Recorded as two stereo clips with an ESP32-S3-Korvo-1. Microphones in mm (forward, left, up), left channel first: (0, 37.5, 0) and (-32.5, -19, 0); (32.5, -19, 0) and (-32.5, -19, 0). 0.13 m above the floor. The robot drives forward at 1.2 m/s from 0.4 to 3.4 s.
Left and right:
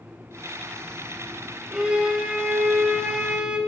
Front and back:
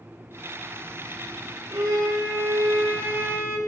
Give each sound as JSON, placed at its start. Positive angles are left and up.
{"t": 1.7, "sound": "a violin", "azimuth_deg": 160, "distance_m": 6.0}